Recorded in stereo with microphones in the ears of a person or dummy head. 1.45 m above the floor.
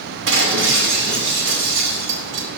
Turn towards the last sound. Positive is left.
turn(degrees=-75)  # may be behind; listen again after turning